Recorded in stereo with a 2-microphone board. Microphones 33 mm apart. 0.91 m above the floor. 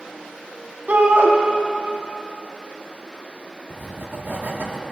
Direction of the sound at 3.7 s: 75° right (ahead or behind).